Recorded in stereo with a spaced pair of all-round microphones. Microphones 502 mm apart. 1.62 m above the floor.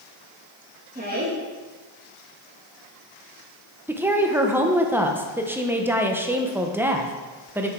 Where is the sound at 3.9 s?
5° right (ahead or behind), 0.8 m.